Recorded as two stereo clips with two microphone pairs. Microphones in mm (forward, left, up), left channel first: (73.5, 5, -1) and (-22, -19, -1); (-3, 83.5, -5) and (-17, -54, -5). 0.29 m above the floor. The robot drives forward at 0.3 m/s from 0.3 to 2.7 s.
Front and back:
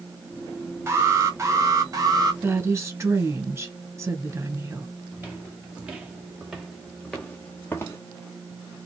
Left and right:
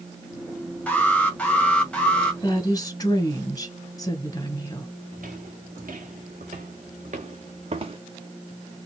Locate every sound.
0.9 s an alarm: 155° left, 1.6 m; by 2.3 s 165° left, 1.9 m
2.4 s a woman speaking: 135° left, 1.5 m; by 4.9 s 140° left, 1.6 m
5.1 s footsteps: 95° right, 2.5 m; by 8.0 s 45° right, 1.2 m